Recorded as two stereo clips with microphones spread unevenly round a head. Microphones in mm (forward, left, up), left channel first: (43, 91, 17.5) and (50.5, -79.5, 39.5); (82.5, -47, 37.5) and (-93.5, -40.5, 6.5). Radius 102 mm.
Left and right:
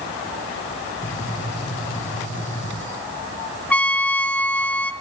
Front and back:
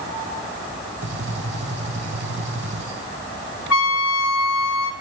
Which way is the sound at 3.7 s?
10° left.